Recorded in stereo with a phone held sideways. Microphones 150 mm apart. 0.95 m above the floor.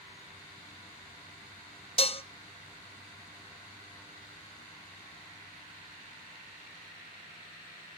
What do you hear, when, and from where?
2.0 s dishes clattering: 40° left (ahead or behind), 0.7 m